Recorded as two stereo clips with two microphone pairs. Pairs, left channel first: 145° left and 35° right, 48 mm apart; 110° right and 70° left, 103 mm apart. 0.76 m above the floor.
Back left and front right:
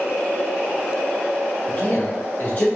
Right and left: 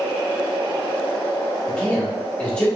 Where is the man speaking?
175° left, 1.7 m.